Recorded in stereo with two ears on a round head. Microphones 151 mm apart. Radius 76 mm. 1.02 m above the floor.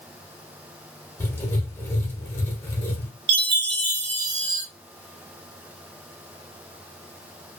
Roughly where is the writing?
Centre.